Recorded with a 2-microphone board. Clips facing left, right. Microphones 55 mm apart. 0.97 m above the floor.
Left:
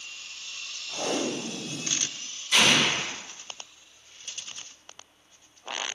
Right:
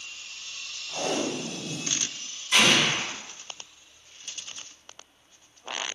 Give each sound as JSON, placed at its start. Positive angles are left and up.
{"t": 0.9, "sound": "tape being pulled", "side_deg": -30, "distance_m": 1.0}
{"t": 2.5, "sound": "an explosion", "side_deg": -5, "distance_m": 1.3}